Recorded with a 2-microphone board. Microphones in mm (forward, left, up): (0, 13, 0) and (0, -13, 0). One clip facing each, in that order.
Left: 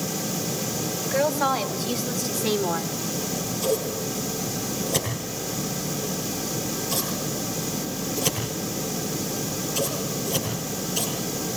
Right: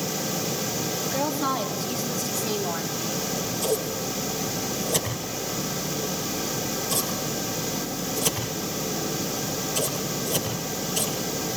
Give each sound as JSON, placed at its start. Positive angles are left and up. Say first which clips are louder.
{"t": 1.0, "sound": "a woman speaking", "louder": "left 5 dB", "side_deg": 75, "distance_m": 4.5}
{"t": 3.1, "sound": "scissors", "louder": "even", "side_deg": 15, "distance_m": 9.0}